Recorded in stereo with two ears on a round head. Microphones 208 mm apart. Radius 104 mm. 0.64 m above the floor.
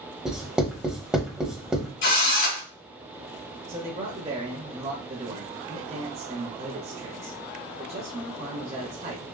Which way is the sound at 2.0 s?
55° left (ahead or behind).